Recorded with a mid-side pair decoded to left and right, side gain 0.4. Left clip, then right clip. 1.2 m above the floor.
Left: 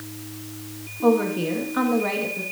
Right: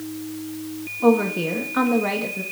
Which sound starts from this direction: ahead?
A woman speaking, at 1.0 s.